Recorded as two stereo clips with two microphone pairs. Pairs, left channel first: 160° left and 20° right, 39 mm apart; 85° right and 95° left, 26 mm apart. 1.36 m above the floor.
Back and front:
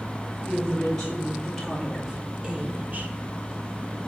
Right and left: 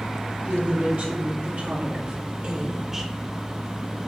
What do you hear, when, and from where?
0.5 s a woman speaking: 90° left, 4 m; by 3.1 s 10° left, 1.7 m